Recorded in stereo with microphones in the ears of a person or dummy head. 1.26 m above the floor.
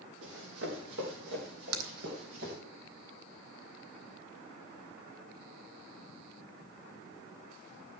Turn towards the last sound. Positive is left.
turn(degrees=-75)  # may be behind; listen again after turning